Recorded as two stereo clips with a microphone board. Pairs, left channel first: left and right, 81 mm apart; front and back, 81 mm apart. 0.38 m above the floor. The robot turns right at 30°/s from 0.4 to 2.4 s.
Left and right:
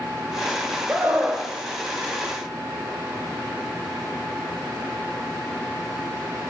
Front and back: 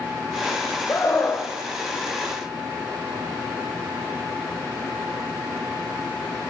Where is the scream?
35° right, 1.3 m; by 1.5 s 15° right, 1.3 m.